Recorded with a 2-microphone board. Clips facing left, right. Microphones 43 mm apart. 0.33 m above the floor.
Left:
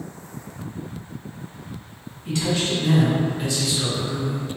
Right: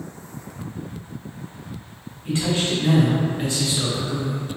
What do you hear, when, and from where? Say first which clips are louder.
2.2 s a man speaking: right 1 dB; 25° right (ahead or behind), 1.7 m; by 4.4 s 40° right (ahead or behind), 1.4 m